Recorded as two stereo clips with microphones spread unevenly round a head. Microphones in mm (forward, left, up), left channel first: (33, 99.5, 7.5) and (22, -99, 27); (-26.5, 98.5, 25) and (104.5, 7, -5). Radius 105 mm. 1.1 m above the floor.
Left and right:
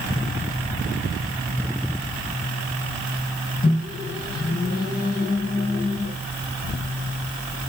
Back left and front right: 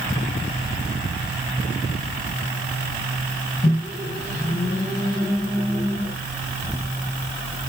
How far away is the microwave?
About 5.5 m.